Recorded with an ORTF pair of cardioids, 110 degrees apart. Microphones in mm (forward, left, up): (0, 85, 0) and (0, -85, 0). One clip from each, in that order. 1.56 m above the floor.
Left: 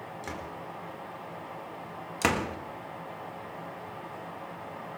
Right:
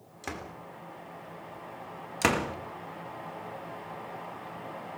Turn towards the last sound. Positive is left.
turn(degrees=-5)